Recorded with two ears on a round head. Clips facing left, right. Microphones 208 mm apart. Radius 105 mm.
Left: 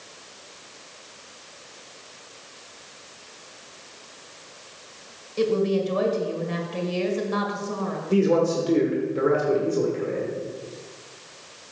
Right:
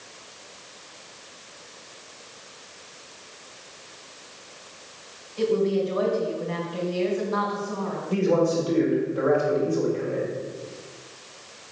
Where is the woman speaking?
65° left (ahead or behind), 2 m.